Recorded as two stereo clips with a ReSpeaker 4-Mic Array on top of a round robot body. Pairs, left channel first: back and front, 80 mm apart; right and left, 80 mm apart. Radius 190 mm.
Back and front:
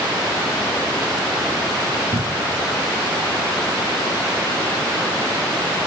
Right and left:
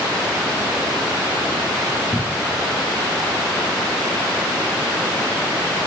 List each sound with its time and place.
2.1 s a cupboard door: 5° right